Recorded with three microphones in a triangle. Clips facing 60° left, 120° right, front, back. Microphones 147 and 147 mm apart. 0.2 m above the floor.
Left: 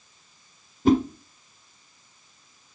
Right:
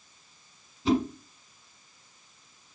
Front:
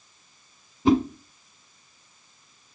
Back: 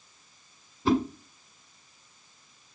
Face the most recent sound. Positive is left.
turn(degrees=70)